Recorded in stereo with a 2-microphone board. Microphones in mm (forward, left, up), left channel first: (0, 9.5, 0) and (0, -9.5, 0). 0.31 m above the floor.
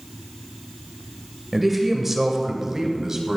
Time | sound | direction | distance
1.5 | a man speaking | 5° right (ahead or behind) | 1.2 m